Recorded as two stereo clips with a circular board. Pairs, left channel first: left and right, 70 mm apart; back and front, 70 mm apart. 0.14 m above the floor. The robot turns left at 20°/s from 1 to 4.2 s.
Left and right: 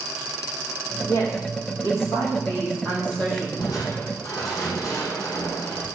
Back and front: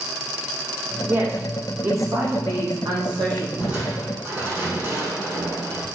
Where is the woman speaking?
55° left, 6.5 m; by 3.5 s 10° left, 6.5 m.